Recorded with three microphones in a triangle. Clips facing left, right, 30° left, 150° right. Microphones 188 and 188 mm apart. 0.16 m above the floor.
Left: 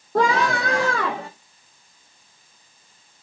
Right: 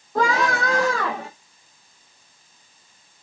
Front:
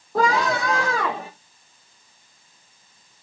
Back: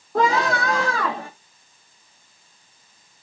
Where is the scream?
120° left, 5 m; by 1.3 s 110° left, 6 m.